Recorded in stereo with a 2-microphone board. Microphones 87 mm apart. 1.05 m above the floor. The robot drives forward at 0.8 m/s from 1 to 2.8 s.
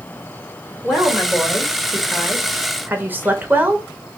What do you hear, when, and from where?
0.8 s a woman speaking: 10° right (ahead or behind), 2.5 m; by 3.9 s 20° right (ahead or behind), 1.1 m